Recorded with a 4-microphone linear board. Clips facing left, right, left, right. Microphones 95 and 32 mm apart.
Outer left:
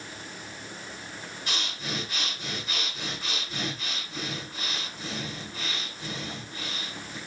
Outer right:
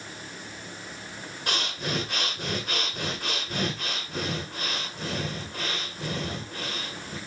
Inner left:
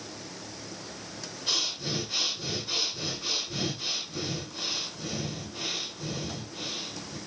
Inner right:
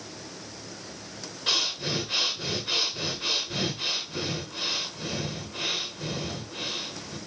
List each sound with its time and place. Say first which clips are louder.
1.5 s breathing: outer right 5 dB, inner right 4 dB; 60° right (ahead or behind), 2 m